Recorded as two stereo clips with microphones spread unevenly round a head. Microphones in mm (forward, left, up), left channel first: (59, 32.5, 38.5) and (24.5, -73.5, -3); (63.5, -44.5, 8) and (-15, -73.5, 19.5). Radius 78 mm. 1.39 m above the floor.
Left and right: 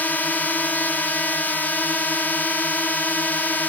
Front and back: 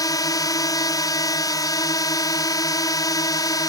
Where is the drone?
10° right.